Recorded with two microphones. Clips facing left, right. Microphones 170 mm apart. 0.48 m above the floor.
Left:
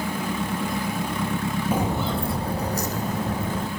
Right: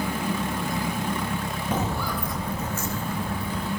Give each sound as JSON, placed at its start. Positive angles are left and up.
{"t": 1.7, "sound": "footsteps", "side_deg": 10, "distance_m": 0.5}